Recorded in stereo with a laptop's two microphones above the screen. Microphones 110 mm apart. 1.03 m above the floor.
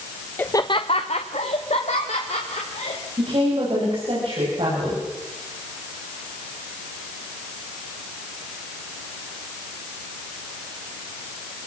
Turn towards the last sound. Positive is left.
turn(degrees=-55)  # may be behind; listen again after turning